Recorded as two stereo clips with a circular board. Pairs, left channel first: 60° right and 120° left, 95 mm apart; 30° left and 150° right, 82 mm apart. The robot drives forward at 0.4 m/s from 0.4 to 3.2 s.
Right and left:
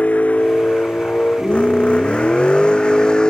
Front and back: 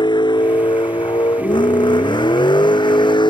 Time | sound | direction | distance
0.0 | a vehicle | 15° left | ?